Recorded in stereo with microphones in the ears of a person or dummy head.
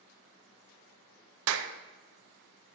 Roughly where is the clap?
Right.